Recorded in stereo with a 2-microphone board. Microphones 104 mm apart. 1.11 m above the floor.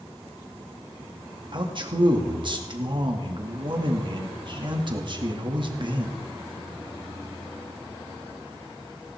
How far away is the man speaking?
About 2 m.